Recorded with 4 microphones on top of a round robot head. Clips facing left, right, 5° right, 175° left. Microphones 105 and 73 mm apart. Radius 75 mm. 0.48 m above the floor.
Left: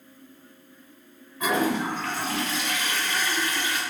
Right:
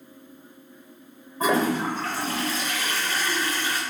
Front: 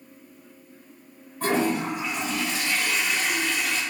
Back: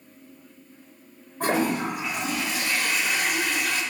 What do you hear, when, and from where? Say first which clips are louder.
1.4 s a toilet flushing: right 2 dB, even; 145° right, 1.3 m